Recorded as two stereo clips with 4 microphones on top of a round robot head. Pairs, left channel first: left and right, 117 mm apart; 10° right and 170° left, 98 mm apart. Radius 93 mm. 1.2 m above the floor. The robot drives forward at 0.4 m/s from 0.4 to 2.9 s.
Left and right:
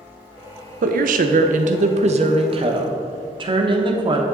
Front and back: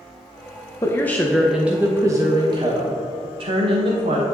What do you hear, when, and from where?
0.8 s a woman speaking: 80° right, 0.6 m; by 4.2 s 140° right, 0.9 m